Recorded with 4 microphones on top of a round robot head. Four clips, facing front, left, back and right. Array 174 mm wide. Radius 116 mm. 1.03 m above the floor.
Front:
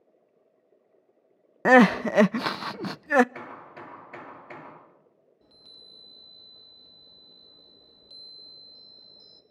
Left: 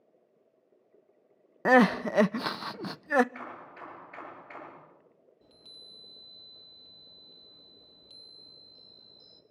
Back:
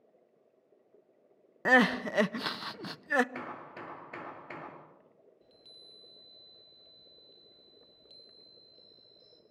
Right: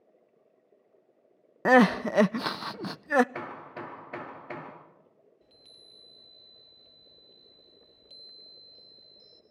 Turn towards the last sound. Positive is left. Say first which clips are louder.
# left 2 dB, front 2 dB
turn(degrees=35)